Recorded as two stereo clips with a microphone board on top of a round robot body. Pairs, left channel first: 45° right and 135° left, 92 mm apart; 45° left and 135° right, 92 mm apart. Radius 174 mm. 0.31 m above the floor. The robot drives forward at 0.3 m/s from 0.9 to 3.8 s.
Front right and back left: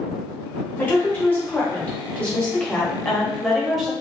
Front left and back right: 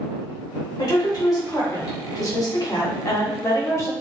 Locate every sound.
0.8 s a woman speaking: 20° left, 1.8 m; by 3.9 s 45° left, 1.3 m